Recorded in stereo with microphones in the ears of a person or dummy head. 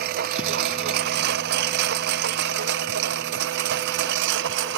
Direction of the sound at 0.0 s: 55° right (ahead or behind).